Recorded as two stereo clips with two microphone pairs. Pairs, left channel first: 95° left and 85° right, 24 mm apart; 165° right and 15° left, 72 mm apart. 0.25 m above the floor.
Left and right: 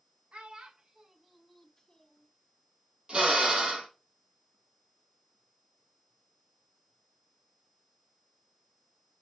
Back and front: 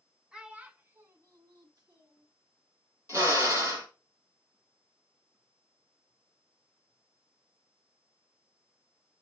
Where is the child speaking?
60° right, 1.4 m; by 2.3 s 35° left, 1.5 m.